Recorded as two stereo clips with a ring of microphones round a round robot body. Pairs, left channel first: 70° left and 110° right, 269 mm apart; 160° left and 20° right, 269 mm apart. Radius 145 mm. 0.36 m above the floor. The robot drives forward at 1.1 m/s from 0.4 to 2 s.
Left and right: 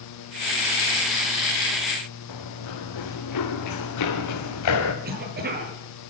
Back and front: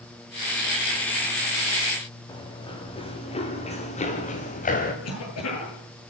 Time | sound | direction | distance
2.3 | running footsteps | 85° left | 6 m
5.0 | a cough | 170° right | 10 m